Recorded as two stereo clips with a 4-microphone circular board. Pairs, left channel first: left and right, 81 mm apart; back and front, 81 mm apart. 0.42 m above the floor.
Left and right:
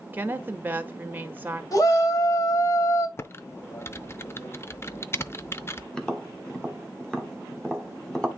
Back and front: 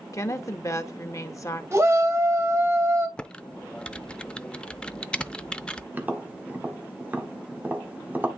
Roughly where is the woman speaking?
Behind right.